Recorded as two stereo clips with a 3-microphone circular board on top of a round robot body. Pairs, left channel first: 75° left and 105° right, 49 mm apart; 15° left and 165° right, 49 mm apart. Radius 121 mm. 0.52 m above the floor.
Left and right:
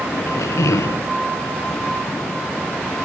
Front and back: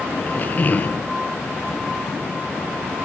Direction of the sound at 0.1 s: 70° left.